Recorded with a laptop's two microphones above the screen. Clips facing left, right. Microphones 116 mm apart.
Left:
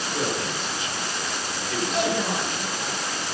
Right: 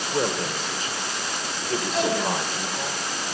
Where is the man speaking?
35° right (ahead or behind), 3 m.